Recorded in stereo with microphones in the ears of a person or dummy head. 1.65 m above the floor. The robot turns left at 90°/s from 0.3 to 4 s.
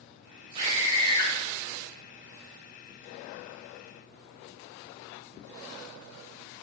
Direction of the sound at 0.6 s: 135° right.